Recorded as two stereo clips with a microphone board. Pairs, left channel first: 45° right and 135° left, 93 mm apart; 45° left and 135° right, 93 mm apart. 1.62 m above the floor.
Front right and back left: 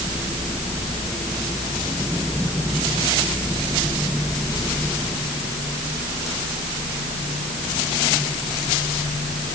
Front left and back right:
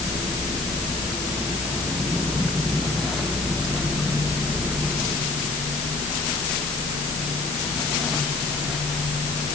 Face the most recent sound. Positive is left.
No sound to turn to.